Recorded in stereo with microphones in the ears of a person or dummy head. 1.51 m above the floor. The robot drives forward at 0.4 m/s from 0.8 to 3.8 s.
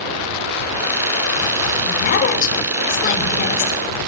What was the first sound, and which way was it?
A woman speaking, 45° left (ahead or behind).